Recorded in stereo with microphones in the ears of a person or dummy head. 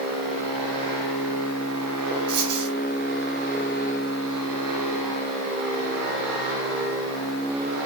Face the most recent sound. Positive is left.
turn(degrees=-60)  # may be behind; listen again after turning